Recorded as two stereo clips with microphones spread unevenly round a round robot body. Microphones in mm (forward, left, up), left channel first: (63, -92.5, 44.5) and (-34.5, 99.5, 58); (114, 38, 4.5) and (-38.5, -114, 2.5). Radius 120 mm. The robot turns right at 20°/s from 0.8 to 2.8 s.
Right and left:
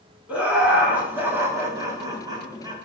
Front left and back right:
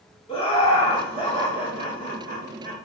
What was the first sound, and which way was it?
Laughter, 35° left.